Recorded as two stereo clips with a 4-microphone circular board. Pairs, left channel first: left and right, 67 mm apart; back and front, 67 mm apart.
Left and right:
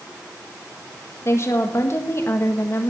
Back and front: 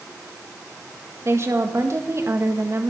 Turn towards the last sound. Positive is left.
turn(degrees=45)